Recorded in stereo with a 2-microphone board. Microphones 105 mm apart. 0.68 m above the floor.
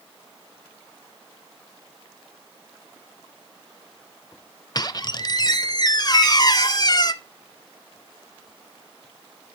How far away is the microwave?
About 7 m.